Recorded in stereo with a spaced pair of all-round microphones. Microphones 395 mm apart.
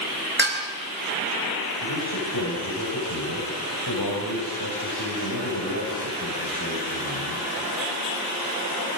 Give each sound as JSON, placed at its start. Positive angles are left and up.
{"t": 0.4, "sound": "dishes clattering", "side_deg": -25, "distance_m": 4.0}
{"t": 1.8, "sound": "a man speaking", "side_deg": 65, "distance_m": 6.5}